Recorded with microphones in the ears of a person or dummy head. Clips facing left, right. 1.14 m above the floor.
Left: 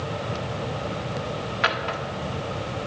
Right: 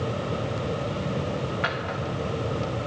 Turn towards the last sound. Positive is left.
turn(degrees=60)  # may be behind; listen again after turning